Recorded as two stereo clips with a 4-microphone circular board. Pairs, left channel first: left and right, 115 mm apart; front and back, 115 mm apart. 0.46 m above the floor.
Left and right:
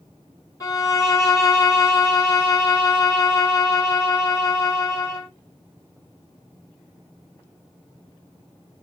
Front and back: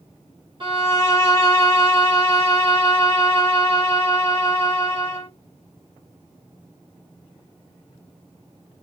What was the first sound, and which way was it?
A violin, 145° left.